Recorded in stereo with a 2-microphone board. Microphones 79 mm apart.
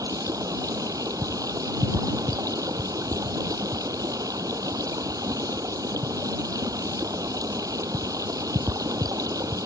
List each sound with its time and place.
0.0 s running water: 50° right (ahead or behind)